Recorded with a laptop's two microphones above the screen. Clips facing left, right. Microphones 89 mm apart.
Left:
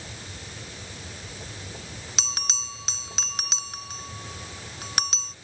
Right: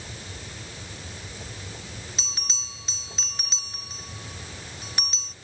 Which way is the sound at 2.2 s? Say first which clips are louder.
Left 5 dB; 85° left.